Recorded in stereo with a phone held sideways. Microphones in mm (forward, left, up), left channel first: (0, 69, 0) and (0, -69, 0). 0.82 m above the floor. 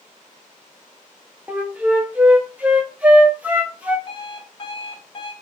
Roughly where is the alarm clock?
Left.